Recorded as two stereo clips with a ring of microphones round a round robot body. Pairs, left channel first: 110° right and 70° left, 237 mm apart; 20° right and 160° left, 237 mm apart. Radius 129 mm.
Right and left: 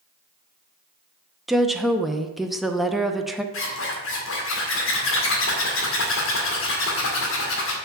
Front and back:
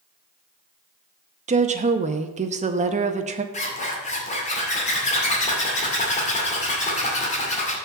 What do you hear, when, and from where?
1.5 s a woman speaking: 155° left, 0.7 m
3.5 s a zipper: 80° right, 2 m